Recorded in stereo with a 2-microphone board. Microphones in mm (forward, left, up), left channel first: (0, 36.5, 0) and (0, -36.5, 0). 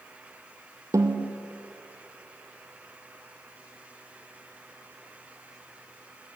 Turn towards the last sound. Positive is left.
turn(degrees=-45)  # may be behind; listen again after turning